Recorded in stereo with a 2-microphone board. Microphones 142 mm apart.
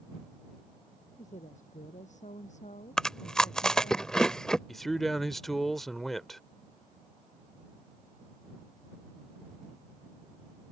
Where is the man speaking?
Centre (ahead or behind).